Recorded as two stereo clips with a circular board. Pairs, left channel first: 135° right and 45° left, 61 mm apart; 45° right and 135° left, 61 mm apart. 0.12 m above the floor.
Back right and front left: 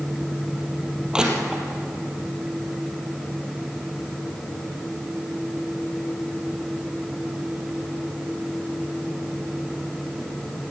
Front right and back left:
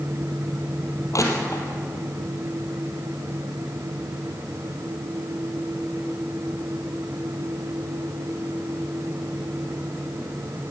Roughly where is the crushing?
Ahead right.